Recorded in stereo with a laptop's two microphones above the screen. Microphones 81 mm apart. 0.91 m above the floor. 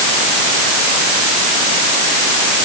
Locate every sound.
Only background noise.